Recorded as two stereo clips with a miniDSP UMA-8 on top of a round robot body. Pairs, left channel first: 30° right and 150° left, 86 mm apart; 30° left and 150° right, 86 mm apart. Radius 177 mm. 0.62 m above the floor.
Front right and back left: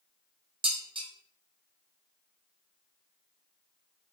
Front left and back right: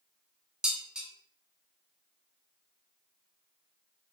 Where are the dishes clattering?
130° left, 1.2 m.